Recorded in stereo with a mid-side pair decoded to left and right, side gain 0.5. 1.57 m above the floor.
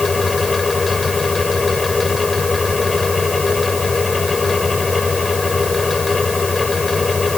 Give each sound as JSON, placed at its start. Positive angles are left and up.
{"t": 0.0, "sound": "a fan", "azimuth_deg": 20}